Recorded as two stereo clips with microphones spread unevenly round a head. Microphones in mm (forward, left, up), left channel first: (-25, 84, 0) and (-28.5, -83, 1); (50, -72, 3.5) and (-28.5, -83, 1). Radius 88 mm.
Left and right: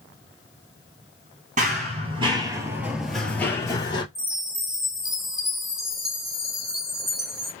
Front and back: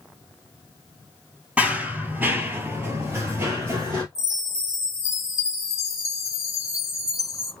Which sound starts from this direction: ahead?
A chime, at 4.2 s.